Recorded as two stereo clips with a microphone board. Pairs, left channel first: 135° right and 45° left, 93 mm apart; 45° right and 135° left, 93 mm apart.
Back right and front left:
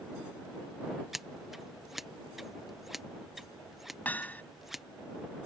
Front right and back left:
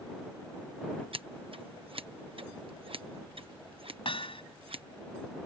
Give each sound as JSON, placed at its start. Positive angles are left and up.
{"t": 1.1, "sound": "scissors", "azimuth_deg": 130}
{"t": 4.0, "sound": "hammering", "azimuth_deg": -60}